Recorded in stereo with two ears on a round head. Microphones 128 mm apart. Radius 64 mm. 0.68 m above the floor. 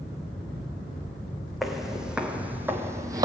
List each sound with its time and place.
1.6 s footsteps: centre (ahead or behind), 1.6 m; by 3.2 s 25° right (ahead or behind), 1.0 m